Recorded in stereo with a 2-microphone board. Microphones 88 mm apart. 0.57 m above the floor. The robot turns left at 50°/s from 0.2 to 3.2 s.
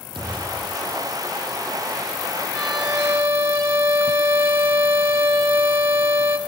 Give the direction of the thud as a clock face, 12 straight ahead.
2 o'clock.